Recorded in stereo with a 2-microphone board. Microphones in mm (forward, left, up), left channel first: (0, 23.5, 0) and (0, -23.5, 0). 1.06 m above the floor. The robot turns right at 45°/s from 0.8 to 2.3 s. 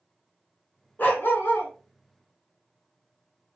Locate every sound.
1.0 s a dog barking: 65° left, 0.9 m; by 1.7 s 100° left, 0.9 m